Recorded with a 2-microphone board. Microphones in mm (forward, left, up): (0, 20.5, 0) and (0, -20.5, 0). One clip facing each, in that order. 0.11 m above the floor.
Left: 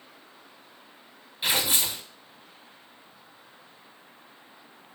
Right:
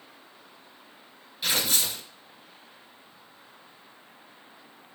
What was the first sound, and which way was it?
Tearing paper, 20° left (ahead or behind).